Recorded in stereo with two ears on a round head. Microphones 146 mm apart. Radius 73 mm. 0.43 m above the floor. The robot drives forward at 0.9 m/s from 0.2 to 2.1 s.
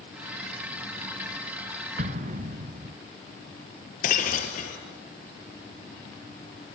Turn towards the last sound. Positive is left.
turn(degrees=50)  # may be behind; listen again after turning